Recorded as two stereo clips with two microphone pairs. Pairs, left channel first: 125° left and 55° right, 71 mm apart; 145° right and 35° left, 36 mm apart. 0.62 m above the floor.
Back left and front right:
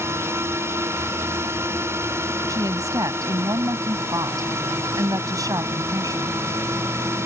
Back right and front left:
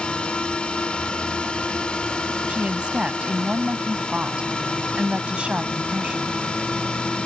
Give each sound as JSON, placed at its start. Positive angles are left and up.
{"t": 0.0, "sound": "a drone", "azimuth_deg": -95}
{"t": 2.5, "sound": "a woman speaking", "azimuth_deg": -25}